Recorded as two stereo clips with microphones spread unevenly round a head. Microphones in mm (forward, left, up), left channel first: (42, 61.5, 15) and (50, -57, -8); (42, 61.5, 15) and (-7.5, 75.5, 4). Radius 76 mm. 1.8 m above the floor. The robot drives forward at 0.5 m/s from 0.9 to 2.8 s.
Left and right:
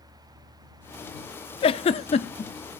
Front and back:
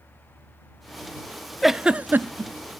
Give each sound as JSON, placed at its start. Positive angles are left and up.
{"t": 1.6, "sound": "a giggle", "azimuth_deg": 70, "distance_m": 0.5}